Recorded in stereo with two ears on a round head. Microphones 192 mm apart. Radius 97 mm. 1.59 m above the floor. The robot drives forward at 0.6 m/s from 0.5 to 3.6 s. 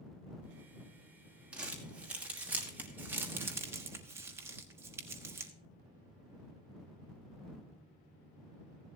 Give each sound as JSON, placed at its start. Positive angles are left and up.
{"t": 1.5, "sound": "crumpling", "side_deg": -5, "distance_m": 2.5}